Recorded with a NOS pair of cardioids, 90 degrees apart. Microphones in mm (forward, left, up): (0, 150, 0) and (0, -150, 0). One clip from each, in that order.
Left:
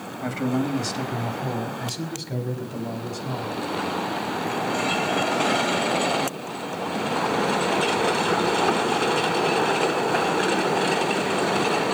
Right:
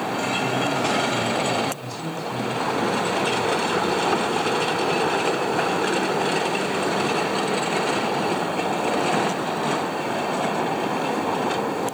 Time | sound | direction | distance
0.2 | a man speaking | 65° left | 3 m